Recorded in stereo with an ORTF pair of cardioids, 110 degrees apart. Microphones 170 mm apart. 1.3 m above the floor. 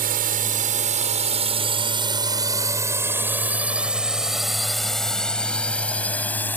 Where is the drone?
60° right; by 6.6 s 10° left.